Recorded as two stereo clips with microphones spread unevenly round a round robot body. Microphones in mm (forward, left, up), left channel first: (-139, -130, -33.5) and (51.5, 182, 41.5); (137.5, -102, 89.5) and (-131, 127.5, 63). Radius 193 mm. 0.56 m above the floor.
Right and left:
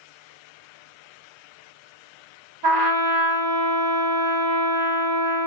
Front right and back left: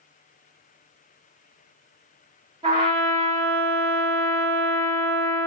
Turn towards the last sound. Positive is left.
turn(degrees=75)